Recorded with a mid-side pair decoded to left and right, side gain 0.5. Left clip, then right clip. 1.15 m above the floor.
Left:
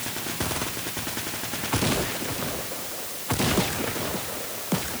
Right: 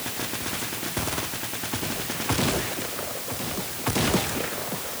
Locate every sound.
Only background noise.